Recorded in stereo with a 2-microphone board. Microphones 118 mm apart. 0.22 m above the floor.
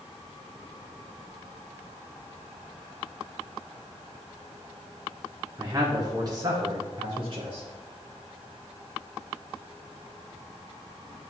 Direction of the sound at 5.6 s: 25° right (ahead or behind).